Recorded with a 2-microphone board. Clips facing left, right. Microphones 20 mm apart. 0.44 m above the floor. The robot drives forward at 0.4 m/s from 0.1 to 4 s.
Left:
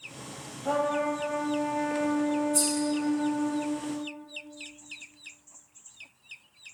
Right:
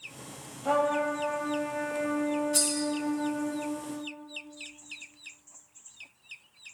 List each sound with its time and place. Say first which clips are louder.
0.6 s a trumpet: right 1 dB; 15° right (ahead or behind), 1.2 m; by 3.5 s 10° right (ahead or behind), 2.5 m
2.5 s cutlery clinking: left 1 dB; 75° right (ahead or behind), 2 m